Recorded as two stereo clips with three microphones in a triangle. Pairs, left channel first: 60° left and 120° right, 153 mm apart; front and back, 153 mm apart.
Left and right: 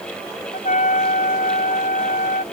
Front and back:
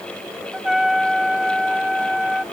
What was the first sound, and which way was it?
A trumpet, 90° left.